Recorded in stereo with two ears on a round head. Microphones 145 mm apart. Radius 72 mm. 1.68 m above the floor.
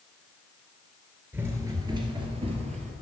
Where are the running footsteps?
15° right (ahead or behind), 1.8 m; by 2.9 s 45° right (ahead or behind), 2.5 m.